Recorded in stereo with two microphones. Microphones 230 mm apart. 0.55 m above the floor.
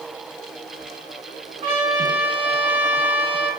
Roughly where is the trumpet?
Right.